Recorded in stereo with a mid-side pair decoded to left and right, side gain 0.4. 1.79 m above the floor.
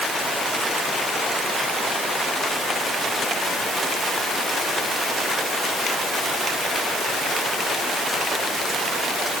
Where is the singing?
I don't hear singing.